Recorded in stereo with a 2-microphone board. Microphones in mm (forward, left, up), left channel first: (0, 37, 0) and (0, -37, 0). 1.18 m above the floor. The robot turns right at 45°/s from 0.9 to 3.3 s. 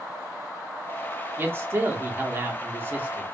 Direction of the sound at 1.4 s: 125° right.